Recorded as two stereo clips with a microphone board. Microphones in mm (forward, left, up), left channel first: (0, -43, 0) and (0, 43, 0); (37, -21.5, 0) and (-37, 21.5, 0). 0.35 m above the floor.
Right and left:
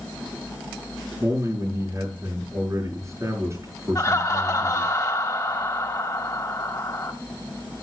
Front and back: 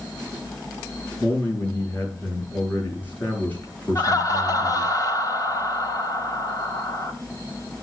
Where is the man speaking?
40° left, 5.5 m.